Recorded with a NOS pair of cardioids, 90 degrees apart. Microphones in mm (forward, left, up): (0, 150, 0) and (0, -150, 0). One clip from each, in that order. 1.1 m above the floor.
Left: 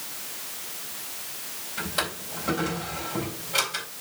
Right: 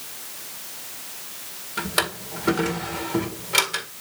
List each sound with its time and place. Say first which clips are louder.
1.8 s a drawer: right 5 dB; 70° right, 1.9 m